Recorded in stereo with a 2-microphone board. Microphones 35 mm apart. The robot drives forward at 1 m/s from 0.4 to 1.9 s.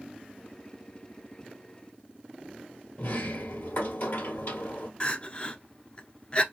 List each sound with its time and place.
3.0 s a sliding door: 70° left (ahead or behind), 1.1 m
5.0 s crying: 35° left (ahead or behind), 0.9 m